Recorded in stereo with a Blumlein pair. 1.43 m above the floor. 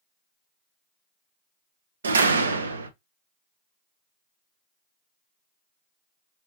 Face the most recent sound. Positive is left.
turn(degrees=-70)